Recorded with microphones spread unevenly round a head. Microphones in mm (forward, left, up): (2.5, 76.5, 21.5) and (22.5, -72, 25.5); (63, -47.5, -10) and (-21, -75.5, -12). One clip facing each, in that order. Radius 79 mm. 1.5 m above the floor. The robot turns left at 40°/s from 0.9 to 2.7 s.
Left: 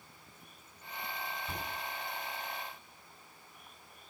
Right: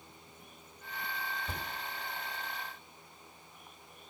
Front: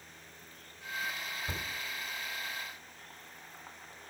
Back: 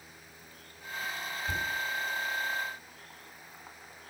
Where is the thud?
25° right, 1.3 m; by 1.7 s 35° right, 1.3 m.